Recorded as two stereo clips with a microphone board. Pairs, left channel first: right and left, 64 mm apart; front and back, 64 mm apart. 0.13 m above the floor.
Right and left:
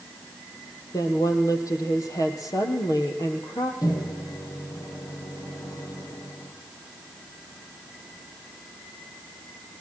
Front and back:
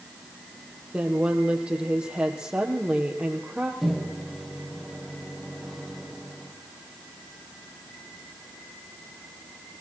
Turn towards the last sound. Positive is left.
turn(degrees=-90)